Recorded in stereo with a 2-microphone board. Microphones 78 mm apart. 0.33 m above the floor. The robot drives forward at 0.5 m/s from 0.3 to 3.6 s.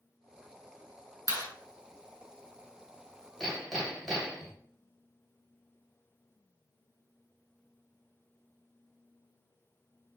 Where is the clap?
50° left (ahead or behind), 2.5 m.